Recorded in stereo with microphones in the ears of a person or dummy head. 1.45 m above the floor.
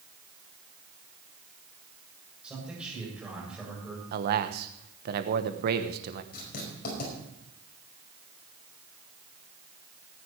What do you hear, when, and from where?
2.4 s a man speaking: 5° right (ahead or behind), 8 m
4.1 s a man speaking: 50° right (ahead or behind), 1.1 m
6.3 s writing: 50° left (ahead or behind), 5 m